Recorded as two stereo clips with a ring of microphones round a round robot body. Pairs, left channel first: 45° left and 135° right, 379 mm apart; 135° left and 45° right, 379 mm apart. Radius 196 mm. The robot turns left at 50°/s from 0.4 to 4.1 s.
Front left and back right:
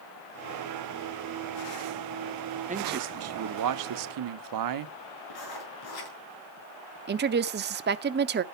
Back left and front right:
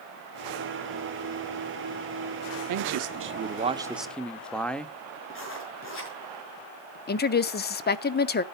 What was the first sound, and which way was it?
A man speaking, 65° right.